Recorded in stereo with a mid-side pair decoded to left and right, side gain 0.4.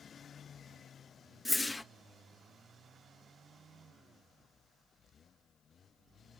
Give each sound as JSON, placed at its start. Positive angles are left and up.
{"t": 1.4, "sound": "a whoosh", "azimuth_deg": 20, "distance_m": 0.7}